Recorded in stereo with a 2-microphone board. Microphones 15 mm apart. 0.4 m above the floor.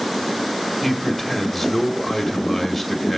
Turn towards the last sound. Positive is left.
turn(degrees=15)  # may be behind; listen again after turning